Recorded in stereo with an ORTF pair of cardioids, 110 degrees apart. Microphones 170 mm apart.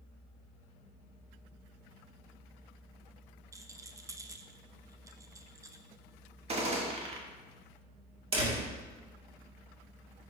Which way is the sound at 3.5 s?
20° right.